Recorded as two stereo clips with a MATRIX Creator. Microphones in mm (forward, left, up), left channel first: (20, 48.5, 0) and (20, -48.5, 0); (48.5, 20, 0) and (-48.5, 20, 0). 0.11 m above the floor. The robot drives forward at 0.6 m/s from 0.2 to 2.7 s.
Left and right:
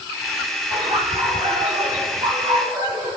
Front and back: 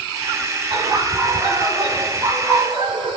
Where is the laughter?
115° right, 3.5 m; by 3.2 s 130° right, 4 m.